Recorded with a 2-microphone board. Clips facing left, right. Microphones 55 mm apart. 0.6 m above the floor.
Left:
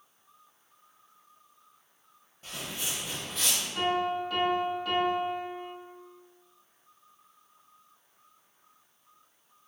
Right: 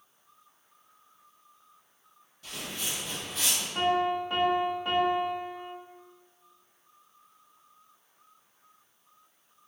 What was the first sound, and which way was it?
Footsteps, 35° left (ahead or behind).